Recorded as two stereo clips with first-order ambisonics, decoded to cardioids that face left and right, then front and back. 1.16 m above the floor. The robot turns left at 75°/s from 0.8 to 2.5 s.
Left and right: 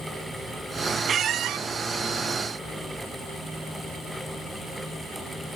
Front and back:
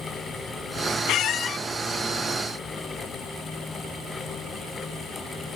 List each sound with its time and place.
1.1 s a squeak: 30° right, 0.6 m; by 1.6 s 70° right, 0.6 m